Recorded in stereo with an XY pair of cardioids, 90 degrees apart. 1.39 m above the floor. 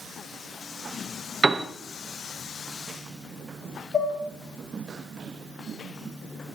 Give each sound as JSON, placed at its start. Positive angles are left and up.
{"t": 1.4, "sound": "a piano", "azimuth_deg": -30, "distance_m": 1.3}
{"t": 3.9, "sound": "dishes clattering", "azimuth_deg": 55, "distance_m": 7.0}